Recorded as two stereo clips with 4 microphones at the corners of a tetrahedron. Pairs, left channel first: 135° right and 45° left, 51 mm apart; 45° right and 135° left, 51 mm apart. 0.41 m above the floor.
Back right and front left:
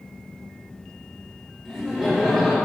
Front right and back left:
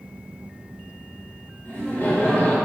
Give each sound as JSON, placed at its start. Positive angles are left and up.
{"t": 1.6, "sound": "laughter", "azimuth_deg": -40, "distance_m": 1.1}